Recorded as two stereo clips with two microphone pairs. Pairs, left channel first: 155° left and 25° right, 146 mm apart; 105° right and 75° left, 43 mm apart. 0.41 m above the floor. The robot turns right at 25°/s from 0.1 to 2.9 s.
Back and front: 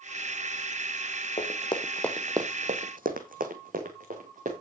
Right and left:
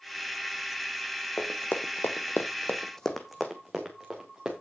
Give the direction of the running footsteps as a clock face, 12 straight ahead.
6 o'clock.